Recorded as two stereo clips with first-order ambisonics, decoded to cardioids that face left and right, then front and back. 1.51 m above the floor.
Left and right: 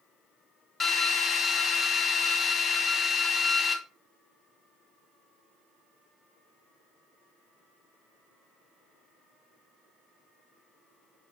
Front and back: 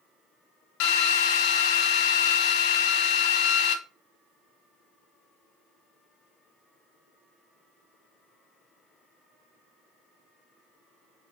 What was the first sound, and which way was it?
A drill, 20° left.